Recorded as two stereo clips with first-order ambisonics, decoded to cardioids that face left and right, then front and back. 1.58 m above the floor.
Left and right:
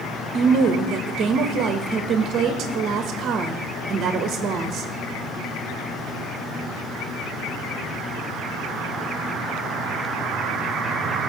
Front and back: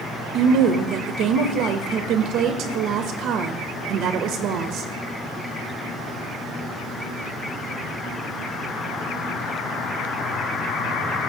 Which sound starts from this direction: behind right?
A woman speaking, at 0.3 s.